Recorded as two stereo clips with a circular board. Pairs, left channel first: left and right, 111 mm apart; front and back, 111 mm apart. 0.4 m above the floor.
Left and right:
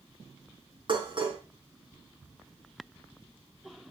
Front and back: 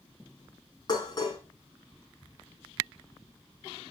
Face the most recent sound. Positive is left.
turn(degrees=-50)